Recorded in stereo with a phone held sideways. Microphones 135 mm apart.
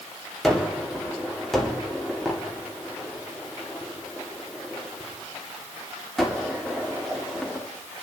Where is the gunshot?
5° left (ahead or behind), 2.5 m.